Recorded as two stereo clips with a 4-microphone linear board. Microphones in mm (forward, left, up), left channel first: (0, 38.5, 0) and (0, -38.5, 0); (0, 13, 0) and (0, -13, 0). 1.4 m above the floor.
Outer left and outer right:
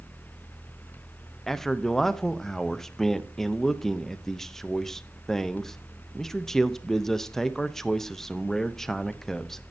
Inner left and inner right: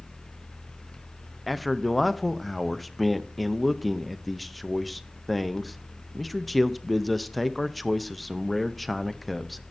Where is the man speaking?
5° left (ahead or behind), 0.6 m.